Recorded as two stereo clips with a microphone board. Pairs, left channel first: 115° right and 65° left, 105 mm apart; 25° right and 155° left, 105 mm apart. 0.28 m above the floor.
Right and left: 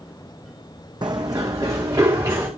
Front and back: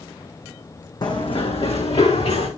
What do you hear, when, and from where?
1.0 s running footsteps: 25° left, 1.1 m; by 2.5 s 5° left, 3 m